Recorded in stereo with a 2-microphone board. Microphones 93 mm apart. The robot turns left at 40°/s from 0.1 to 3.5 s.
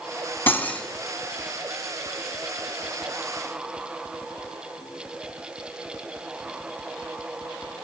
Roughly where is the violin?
No violin in this recording.